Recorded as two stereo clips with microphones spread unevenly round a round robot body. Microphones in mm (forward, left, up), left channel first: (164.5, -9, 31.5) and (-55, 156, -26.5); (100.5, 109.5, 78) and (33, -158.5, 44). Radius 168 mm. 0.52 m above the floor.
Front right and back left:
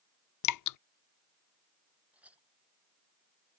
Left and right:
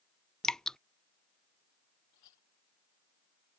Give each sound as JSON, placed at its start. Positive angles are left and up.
{"t": 0.4, "sound": "dripping", "azimuth_deg": -15}
{"t": 2.1, "sound": "a clink", "azimuth_deg": 55}